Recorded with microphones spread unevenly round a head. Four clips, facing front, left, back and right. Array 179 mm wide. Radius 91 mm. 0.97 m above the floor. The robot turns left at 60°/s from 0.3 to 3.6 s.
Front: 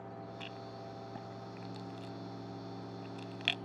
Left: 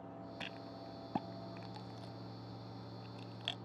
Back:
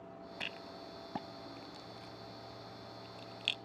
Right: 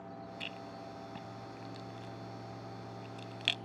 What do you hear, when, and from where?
0.4 s a rattle: 150° left; by 3.5 s 40° right